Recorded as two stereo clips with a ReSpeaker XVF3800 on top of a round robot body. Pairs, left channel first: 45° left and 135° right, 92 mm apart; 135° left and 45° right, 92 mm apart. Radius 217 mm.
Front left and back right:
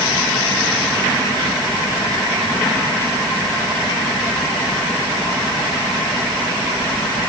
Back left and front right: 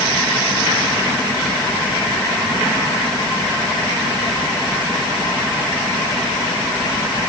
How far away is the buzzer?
I don't hear a buzzer.